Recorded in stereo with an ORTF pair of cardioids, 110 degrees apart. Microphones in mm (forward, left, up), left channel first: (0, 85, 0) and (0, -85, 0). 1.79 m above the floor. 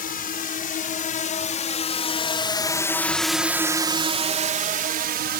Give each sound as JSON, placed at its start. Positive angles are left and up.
{"t": 0.0, "sound": "a drone", "azimuth_deg": 55}